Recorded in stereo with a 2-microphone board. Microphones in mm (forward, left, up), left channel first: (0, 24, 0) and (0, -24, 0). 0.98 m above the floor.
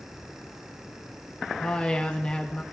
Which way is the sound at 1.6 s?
20° left (ahead or behind).